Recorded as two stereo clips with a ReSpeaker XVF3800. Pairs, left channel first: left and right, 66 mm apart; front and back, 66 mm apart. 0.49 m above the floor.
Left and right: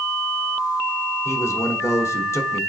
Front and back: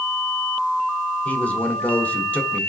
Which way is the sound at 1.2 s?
60° left.